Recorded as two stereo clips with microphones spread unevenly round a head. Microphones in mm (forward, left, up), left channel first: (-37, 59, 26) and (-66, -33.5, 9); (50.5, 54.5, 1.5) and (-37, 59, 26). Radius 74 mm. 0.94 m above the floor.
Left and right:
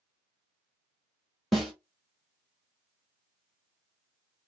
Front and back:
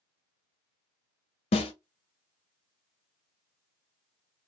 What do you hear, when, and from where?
1.5 s a snare drum: 15° right, 0.7 m